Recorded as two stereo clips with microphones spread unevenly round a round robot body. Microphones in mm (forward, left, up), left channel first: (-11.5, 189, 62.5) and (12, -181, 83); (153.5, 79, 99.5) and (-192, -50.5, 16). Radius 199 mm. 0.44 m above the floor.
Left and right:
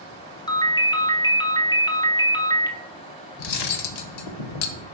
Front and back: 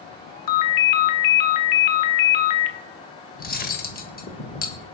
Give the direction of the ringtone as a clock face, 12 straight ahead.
11 o'clock.